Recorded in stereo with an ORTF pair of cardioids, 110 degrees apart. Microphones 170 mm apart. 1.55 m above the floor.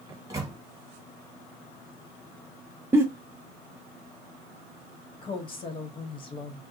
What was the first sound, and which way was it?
A microwave, 20° right.